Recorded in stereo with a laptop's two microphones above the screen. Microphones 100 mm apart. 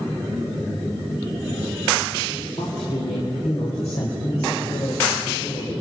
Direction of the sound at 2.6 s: 85° left.